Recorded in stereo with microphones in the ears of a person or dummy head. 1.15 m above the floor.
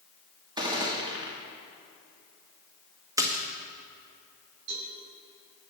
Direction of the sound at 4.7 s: 60° right (ahead or behind).